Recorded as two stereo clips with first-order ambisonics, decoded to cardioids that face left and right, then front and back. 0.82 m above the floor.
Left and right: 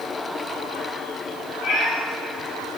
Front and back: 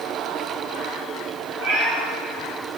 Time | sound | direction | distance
1.6 | a cat meowing | 155° left | 6 m